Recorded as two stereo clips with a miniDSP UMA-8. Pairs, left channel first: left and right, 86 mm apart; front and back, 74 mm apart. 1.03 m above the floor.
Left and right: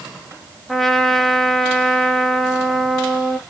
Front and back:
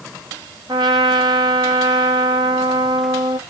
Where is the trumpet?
Straight behind, 1.5 m.